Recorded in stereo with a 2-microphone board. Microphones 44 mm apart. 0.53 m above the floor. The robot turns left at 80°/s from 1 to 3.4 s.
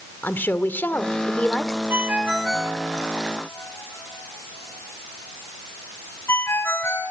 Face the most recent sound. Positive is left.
turn(degrees=65)  # may be behind; listen again after turning